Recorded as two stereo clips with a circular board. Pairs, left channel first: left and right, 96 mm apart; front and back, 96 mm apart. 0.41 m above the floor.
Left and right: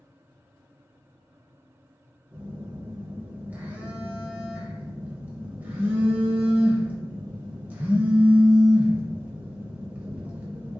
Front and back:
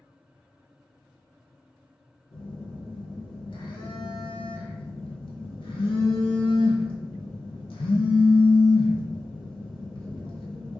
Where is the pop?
No pop in this recording.